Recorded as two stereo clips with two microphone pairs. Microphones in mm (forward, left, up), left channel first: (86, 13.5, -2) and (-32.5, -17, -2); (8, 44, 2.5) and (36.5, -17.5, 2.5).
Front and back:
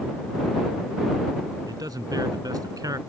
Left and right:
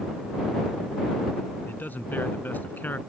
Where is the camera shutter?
No camera shutter in this recording.